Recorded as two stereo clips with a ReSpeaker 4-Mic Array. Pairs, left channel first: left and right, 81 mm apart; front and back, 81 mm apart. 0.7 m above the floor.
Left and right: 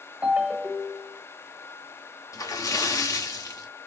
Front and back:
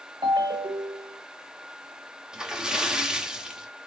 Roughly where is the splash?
Left.